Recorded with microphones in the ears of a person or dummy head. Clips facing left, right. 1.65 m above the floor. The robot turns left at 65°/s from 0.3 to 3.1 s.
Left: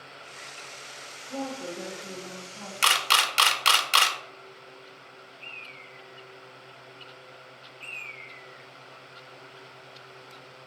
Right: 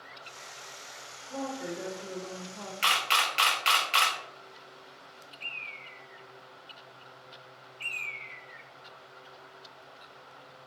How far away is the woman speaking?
About 0.7 m.